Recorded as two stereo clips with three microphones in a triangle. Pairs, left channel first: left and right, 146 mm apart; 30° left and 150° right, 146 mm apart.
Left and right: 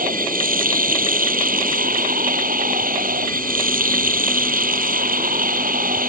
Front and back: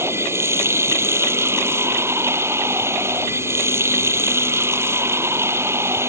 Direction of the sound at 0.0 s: 80° right.